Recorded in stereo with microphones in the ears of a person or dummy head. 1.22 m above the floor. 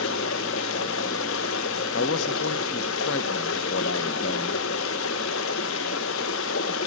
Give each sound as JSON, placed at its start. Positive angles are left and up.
{"t": 0.0, "sound": "running water", "side_deg": 65, "distance_m": 0.8}
{"t": 1.9, "sound": "a man speaking", "side_deg": 70, "distance_m": 0.7}